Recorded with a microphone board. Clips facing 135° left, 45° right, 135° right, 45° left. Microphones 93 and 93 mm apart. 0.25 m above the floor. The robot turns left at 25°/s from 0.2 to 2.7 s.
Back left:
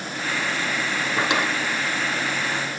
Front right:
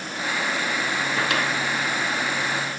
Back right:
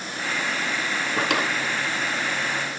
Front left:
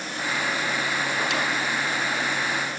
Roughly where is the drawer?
Behind right.